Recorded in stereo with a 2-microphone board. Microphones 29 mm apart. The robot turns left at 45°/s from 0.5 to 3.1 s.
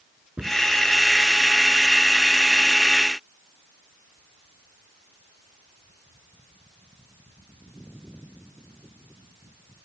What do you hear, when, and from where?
0.4 s a cupboard door: 50° right (ahead or behind); by 0.6 s 55° right (ahead or behind)